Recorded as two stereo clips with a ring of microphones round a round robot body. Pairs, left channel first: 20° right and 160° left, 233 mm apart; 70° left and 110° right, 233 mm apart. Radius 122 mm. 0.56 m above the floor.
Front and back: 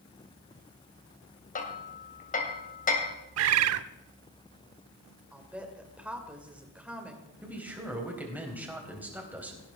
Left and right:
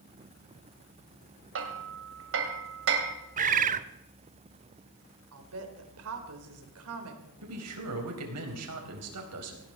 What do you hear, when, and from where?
1.6 s hammering: 80° right, 2.5 m
3.4 s a bird: 170° right, 0.6 m
5.3 s a woman speaking: 120° right, 2.5 m
7.4 s a man speaking: 120° right, 3.5 m